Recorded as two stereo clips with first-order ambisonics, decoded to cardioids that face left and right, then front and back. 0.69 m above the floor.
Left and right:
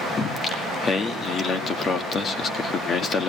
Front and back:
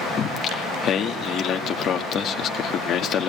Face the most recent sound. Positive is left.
turn(degrees=35)